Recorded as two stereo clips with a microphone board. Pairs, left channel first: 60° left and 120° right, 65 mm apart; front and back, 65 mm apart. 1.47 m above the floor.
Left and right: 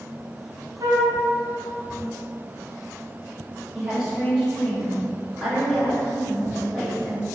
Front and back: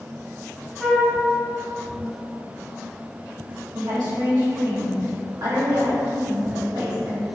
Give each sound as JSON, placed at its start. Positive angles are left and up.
{"t": 0.8, "sound": "a flute", "azimuth_deg": -90, "distance_m": 0.6}
{"t": 3.7, "sound": "a woman speaking", "azimuth_deg": 165, "distance_m": 1.3}